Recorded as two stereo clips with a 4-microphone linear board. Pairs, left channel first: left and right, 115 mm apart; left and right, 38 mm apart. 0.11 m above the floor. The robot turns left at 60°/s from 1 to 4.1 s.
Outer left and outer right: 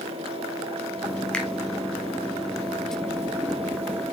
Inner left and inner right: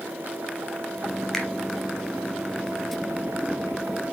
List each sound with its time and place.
1.3 s a finger snap: 10° left (ahead or behind), 1.4 m